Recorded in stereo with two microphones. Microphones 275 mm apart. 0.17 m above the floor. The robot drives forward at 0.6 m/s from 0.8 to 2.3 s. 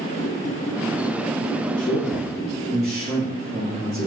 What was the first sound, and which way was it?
A squeak, 10° left (ahead or behind).